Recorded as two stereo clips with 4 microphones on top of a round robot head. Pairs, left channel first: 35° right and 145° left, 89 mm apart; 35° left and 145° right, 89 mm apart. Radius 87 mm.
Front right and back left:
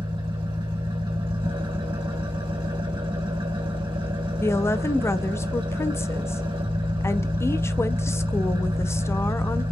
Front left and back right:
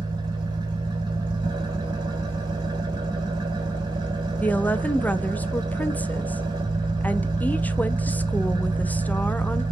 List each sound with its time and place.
0.0 s an engine running: 175° left, 1.9 m
4.4 s a woman speaking: 20° right, 0.6 m